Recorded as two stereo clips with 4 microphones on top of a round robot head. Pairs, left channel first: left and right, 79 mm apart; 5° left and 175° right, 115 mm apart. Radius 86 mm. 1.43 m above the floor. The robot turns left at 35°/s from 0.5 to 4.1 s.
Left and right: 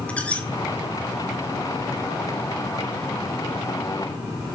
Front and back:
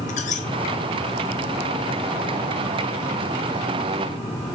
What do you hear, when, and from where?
0.1 s a squeak: 15° left, 2.5 m